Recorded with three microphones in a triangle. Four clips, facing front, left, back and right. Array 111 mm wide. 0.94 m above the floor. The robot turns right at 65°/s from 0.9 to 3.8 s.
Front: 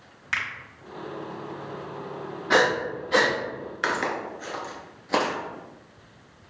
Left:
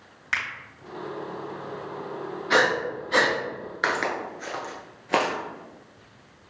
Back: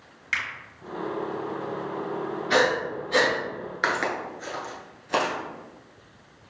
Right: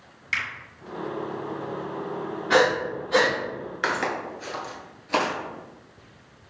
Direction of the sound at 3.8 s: 140° left.